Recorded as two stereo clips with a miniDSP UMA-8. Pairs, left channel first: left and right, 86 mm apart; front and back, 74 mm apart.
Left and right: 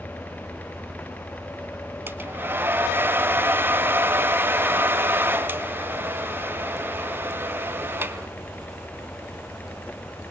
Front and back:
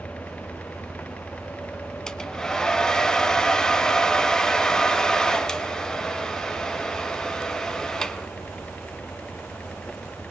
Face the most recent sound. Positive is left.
turn(degrees=-70)